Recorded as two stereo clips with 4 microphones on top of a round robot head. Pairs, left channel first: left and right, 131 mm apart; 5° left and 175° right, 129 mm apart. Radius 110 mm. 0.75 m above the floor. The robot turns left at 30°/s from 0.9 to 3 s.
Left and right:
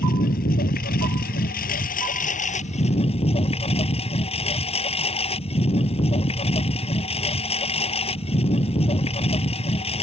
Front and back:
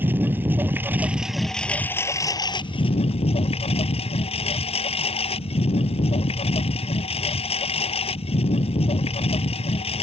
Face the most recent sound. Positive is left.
turn(degrees=50)